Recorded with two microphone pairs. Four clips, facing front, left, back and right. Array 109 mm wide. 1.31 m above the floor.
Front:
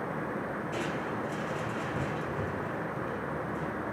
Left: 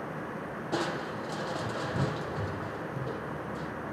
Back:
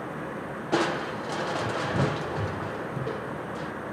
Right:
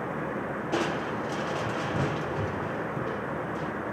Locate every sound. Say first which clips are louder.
0.7 s crushing: right 3 dB, back 11 dB; 170° right, 1.0 m